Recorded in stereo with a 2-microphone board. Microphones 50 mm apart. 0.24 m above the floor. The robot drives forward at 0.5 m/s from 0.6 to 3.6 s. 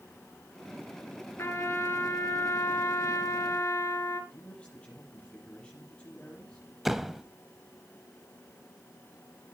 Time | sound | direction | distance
1.4 | a trumpet | 55° left (ahead or behind) | 1.7 m
4.3 | a man speaking | 25° left (ahead or behind) | 7 m
6.8 | a door slam | 5° right (ahead or behind) | 0.7 m